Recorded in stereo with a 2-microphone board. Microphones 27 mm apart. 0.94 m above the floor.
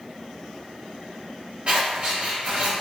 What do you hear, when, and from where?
1.7 s scissors: 45° right (ahead or behind), 1.2 m